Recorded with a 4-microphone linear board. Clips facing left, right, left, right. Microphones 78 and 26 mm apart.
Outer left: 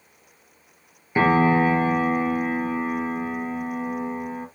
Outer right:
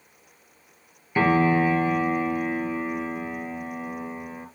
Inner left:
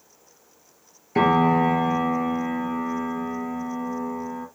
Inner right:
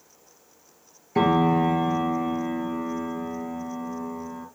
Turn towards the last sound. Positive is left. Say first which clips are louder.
# outer left 2 dB, inner left 2 dB
turn(degrees=20)  # may be behind; listen again after turning